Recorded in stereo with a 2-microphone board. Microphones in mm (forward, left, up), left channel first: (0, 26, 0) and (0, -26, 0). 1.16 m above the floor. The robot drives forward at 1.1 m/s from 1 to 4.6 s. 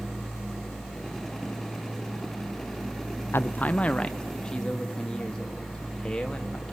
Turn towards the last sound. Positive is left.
turn(degrees=10)  # may be behind; listen again after turning